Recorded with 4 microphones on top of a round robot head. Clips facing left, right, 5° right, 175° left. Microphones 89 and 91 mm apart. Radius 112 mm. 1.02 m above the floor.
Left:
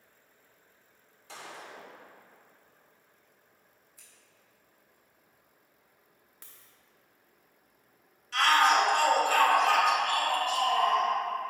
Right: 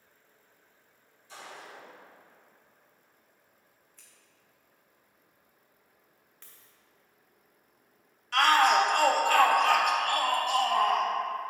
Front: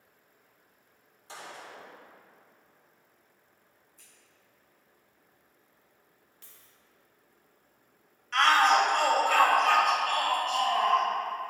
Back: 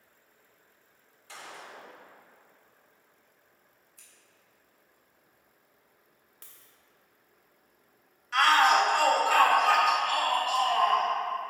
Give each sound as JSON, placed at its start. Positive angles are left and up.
{"t": 1.3, "sound": "a gunshot", "azimuth_deg": 60, "distance_m": 2.0}
{"t": 4.0, "sound": "scissors", "azimuth_deg": 170, "distance_m": 2.5}
{"t": 6.4, "sound": "a dropped coin", "azimuth_deg": 160, "distance_m": 0.6}
{"t": 8.3, "sound": "a shout", "azimuth_deg": -100, "distance_m": 1.5}